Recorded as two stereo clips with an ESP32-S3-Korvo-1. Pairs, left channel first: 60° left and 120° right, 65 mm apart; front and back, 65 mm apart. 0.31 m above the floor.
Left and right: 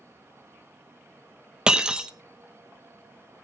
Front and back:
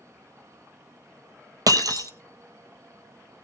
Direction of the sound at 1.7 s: 160° left.